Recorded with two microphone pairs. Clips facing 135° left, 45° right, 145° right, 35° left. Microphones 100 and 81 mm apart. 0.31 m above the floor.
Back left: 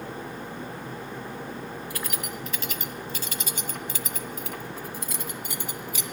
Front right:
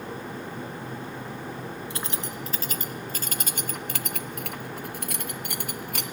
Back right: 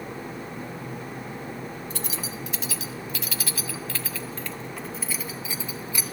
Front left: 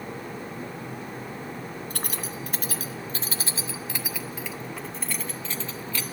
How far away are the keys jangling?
About 1.6 m.